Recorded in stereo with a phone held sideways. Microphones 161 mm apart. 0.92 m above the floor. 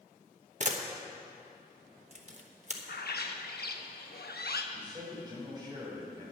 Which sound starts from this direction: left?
A bird, at 2.9 s.